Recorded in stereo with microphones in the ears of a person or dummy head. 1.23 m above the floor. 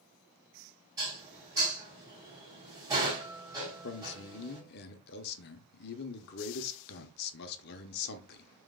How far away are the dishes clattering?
About 3 m.